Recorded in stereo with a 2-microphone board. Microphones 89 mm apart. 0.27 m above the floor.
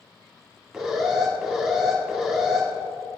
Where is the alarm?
Centre (ahead or behind), 2.5 m.